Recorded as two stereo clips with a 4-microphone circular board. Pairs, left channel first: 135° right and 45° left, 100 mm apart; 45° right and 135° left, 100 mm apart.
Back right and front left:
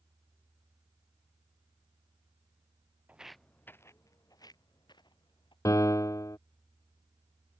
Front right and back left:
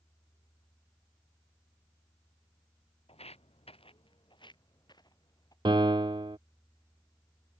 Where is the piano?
170° left.